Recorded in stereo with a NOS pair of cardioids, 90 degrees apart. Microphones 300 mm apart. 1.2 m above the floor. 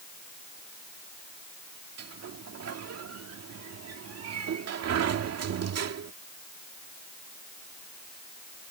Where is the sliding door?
55° right.